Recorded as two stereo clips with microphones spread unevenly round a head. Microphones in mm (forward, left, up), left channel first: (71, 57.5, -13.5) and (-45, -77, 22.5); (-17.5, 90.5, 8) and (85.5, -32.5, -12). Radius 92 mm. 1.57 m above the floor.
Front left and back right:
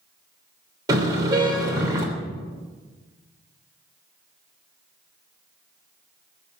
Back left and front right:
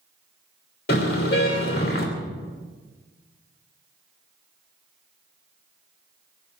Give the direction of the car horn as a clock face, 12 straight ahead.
7 o'clock.